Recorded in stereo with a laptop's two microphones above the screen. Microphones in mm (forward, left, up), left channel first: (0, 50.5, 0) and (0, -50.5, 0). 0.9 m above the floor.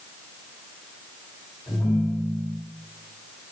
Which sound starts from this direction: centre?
A ringtone, at 1.7 s.